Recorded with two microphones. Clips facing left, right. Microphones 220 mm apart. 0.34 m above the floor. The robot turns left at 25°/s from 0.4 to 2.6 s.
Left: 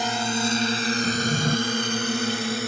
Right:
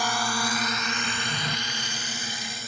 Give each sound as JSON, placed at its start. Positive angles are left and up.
{"t": 0.0, "sound": "a drone", "side_deg": 20}
{"t": 1.0, "sound": "a drawer", "side_deg": 45}